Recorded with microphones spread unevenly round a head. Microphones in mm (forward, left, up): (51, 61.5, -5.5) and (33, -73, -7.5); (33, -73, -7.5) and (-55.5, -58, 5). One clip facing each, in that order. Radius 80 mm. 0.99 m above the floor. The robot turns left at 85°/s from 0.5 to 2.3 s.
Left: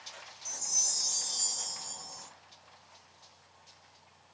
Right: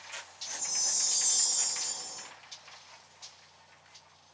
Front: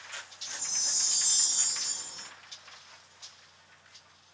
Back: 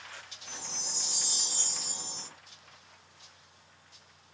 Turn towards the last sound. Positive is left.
turn(degrees=-140)